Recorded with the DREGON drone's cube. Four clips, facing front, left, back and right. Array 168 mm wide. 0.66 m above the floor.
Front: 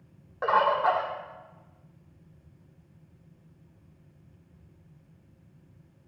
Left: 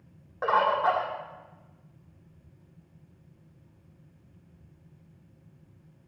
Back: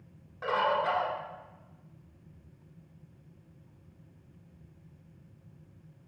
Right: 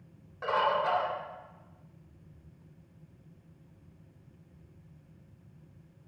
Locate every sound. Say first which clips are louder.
0.4 s a bird: left 4 dB, front 5 dB; 40° left, 2.0 m